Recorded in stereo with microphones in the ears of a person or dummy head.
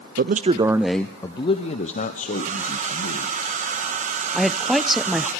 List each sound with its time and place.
0.2 s a man speaking: 45° right (ahead or behind), 0.6 m; by 3.3 s 55° left (ahead or behind), 1.9 m
2.3 s a hair dryer: 40° right (ahead or behind), 1.7 m
4.3 s a woman speaking: centre (ahead or behind), 0.7 m